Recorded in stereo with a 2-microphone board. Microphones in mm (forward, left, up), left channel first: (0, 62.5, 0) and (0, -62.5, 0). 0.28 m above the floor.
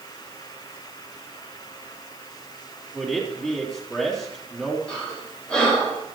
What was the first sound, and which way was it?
A man speaking, 5° left (ahead or behind).